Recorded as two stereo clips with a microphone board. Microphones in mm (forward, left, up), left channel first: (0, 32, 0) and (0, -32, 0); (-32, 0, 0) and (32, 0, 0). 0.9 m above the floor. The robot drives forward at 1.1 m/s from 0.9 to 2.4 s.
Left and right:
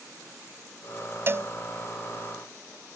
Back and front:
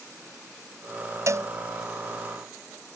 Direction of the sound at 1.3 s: 40° right.